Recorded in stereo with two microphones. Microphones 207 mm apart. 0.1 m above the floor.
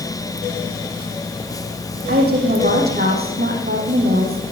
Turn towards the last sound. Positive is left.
turn(degrees=-50)  # may be behind; listen again after turning